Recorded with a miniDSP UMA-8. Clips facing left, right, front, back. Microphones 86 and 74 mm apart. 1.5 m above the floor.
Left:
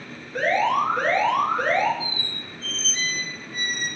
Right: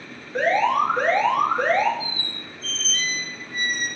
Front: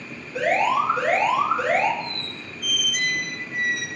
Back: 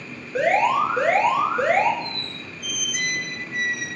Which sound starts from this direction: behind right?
An alarm, at 0.3 s.